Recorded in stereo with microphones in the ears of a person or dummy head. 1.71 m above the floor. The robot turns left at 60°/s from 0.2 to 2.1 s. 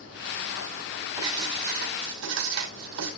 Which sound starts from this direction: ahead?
Writing, at 1.2 s.